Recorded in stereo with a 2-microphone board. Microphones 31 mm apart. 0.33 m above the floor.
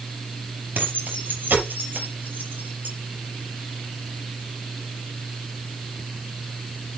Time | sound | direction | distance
0.8 | keys jangling | 75° right (ahead or behind) | 5.5 m